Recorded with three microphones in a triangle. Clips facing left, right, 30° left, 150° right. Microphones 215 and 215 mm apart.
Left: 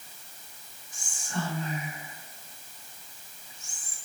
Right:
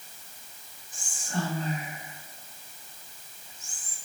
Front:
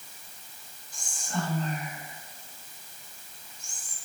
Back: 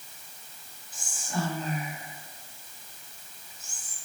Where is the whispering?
70° right, 1.4 m.